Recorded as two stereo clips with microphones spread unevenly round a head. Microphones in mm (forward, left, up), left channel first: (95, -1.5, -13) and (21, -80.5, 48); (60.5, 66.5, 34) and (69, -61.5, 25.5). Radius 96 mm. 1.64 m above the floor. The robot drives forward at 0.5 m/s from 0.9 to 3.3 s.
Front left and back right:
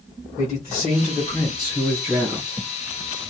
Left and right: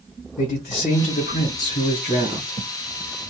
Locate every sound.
0.4 s a man speaking: 100° left, 1.5 m; by 2.6 s 130° left, 1.8 m